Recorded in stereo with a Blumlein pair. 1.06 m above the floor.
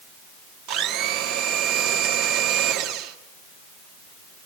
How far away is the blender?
About 1.6 m.